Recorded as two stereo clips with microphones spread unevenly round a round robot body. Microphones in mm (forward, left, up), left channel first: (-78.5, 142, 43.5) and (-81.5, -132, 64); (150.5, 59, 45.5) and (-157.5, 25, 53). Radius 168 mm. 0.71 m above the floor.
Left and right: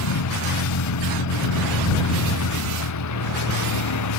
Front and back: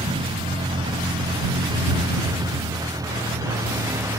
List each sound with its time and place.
0.0 s a vehicle: 110° left; by 4.2 s 105° left